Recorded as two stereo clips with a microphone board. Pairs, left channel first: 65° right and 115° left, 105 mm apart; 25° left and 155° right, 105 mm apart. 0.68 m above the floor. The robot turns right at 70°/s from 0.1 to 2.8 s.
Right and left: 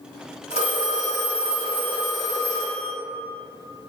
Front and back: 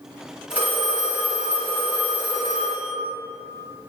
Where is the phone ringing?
125° left, 1.7 m; by 2.9 s 75° right, 1.7 m.